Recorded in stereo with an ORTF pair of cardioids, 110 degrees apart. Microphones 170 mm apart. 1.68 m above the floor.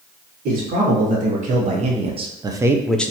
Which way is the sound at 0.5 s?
55° right.